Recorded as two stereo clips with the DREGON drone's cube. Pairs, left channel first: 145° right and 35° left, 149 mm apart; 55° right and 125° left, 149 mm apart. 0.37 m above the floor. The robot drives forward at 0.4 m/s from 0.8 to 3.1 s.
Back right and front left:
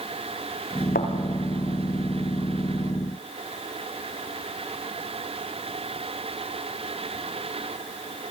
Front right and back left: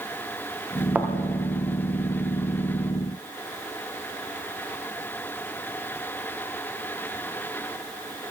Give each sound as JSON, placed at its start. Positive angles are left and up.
{"t": 0.9, "sound": "a thud", "azimuth_deg": -155, "distance_m": 4.0}